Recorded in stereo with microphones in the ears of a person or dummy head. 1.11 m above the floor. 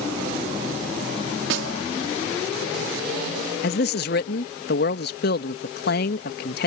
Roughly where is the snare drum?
Right.